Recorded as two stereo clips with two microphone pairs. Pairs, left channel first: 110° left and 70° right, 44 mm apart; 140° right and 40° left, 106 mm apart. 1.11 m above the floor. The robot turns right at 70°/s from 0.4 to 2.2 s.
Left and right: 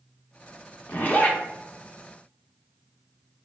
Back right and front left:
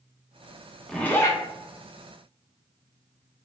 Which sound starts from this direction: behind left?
A zipper, at 0.9 s.